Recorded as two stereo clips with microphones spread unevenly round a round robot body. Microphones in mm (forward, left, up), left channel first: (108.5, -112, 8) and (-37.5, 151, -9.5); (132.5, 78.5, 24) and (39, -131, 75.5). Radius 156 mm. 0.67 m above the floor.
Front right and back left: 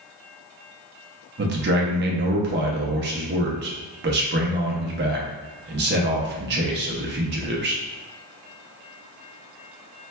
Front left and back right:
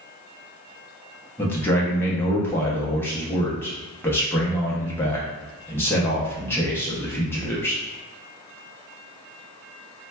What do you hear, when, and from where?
1.4 s a man speaking: 120° left, 0.6 m